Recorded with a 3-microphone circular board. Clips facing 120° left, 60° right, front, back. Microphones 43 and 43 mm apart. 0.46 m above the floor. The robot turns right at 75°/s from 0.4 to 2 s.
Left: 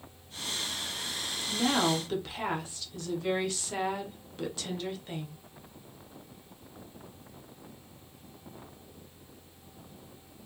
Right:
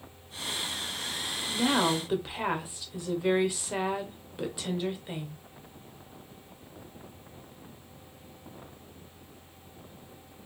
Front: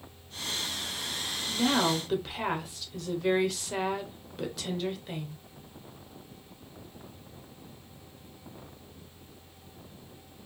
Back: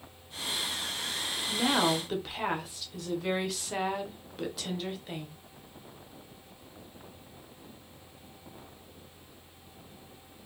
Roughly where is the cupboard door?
I don't hear a cupboard door.